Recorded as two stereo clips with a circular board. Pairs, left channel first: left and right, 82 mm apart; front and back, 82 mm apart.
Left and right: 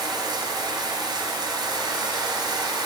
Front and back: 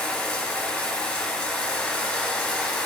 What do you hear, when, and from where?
0.0 s running water: 80° right, 2.5 m